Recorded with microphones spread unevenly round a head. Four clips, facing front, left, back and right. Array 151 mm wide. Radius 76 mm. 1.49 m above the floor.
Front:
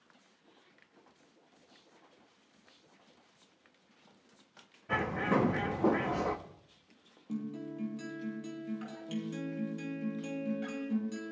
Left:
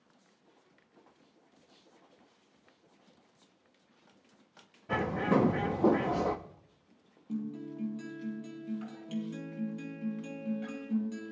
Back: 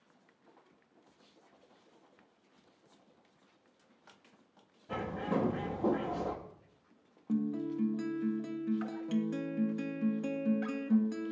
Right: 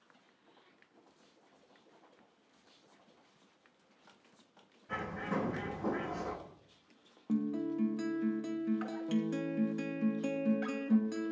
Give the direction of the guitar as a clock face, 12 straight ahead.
4 o'clock.